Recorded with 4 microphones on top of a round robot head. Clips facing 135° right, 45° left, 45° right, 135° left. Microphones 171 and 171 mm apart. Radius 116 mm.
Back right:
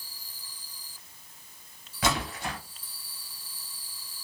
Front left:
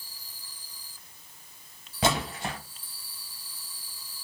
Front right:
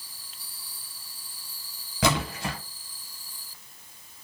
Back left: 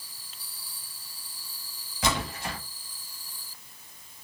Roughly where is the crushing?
I don't hear crushing.